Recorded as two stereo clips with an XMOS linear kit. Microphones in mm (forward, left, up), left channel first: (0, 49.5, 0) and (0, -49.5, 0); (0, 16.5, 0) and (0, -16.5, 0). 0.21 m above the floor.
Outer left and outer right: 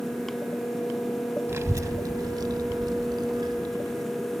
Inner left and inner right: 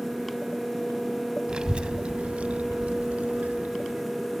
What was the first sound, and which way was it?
A child speaking, 25° right (ahead or behind).